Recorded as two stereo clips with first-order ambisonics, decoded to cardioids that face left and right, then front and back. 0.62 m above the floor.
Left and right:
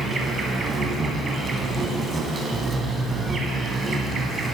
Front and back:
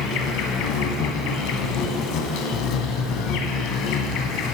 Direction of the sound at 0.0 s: 20° right.